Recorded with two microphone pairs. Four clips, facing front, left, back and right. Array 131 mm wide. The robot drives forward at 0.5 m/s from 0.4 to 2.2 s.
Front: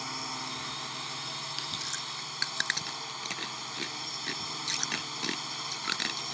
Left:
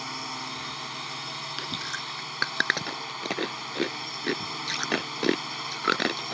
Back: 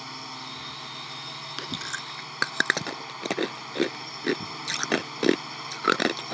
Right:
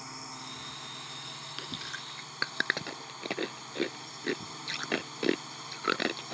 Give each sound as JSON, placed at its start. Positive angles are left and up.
{"t": 0.0, "sound": "a drone", "azimuth_deg": 80}
{"t": 1.6, "sound": "chewing", "azimuth_deg": 155}